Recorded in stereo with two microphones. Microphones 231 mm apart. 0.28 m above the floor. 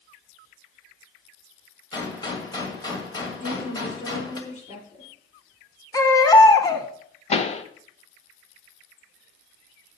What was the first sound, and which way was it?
A gunshot, 20° left (ahead or behind).